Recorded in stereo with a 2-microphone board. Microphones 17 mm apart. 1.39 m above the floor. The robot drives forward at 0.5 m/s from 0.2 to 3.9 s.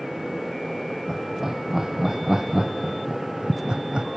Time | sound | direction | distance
1.1 | laughter | 25° right (ahead or behind) | 1.4 m